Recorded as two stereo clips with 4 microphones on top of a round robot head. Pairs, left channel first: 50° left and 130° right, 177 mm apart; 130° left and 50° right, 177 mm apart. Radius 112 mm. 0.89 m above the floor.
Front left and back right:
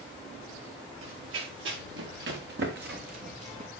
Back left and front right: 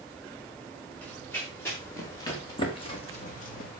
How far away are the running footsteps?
About 5.5 m.